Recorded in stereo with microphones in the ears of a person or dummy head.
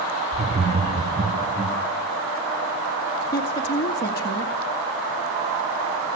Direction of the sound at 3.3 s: 15° left (ahead or behind).